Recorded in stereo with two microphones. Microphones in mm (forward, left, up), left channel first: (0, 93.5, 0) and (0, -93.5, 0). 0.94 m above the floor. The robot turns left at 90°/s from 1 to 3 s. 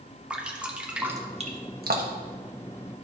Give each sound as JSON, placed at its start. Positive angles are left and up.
{"t": 0.3, "sound": "dripping", "side_deg": -5, "distance_m": 1.2}